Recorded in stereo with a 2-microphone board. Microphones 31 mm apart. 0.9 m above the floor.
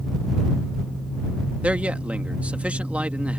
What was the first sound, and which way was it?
A man speaking, 50° right (ahead or behind).